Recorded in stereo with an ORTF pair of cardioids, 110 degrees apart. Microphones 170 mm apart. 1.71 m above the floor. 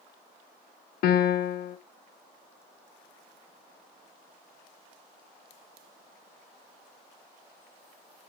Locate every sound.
1.0 s a piano: 65° left, 0.8 m